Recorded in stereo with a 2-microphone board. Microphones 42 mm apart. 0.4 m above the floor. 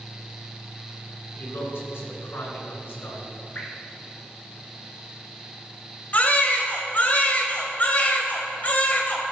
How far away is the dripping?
About 2.5 m.